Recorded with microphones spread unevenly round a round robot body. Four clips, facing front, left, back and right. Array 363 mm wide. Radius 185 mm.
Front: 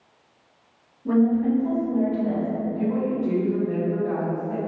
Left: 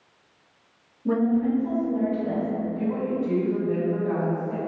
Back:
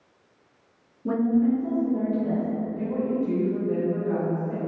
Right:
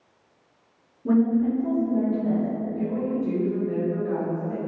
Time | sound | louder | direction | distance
1.1 | a woman speaking | right 1 dB, front 2 dB | 125° right | 1.6 m
2.8 | a woman speaking | right 1 dB, front 2 dB | 55° right | 1.7 m